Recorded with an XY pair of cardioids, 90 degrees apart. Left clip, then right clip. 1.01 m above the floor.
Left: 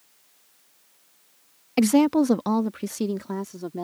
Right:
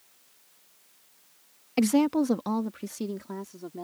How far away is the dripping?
I don't hear dripping.